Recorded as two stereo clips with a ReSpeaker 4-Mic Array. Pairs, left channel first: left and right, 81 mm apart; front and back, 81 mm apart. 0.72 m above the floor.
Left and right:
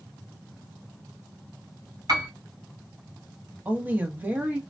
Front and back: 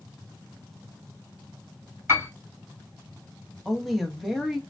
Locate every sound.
2.1 s a piano: 120° right, 2.5 m
3.6 s a woman speaking: 95° right, 0.7 m